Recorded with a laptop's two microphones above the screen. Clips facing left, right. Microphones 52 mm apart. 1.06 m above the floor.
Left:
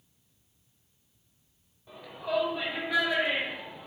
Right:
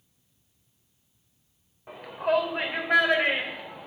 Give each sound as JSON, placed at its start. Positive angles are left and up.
{"t": 1.9, "sound": "a shout", "side_deg": -50, "distance_m": 4.5}